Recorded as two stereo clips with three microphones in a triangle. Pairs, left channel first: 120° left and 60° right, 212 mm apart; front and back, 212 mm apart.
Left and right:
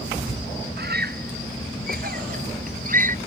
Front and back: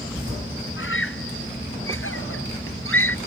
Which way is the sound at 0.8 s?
20° right.